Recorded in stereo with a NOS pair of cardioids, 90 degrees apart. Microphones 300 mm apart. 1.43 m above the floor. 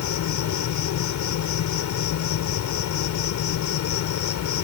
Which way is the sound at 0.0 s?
65° left.